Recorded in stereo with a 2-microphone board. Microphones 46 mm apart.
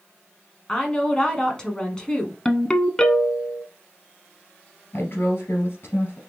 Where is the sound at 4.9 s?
55° left (ahead or behind), 2.5 m.